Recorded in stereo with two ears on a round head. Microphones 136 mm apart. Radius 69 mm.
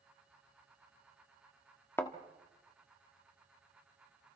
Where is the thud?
15° left (ahead or behind), 1.4 m.